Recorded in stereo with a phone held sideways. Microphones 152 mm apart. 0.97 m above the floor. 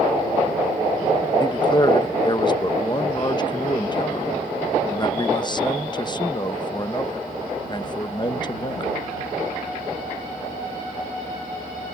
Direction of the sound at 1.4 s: 30° left (ahead or behind).